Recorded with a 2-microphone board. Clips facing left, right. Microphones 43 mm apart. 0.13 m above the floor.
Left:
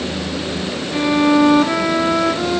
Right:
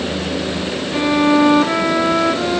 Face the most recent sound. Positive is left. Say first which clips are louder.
# even
turn(degrees=-5)  # may be behind; listen again after turning